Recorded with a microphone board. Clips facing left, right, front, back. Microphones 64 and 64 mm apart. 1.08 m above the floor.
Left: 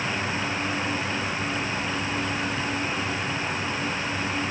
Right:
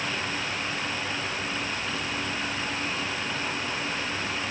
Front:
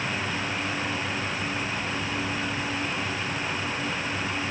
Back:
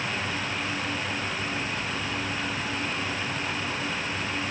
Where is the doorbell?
No doorbell in this recording.